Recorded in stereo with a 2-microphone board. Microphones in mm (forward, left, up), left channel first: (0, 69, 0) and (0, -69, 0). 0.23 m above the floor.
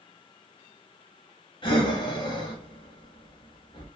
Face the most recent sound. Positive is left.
turn(degrees=35)  # may be behind; listen again after turning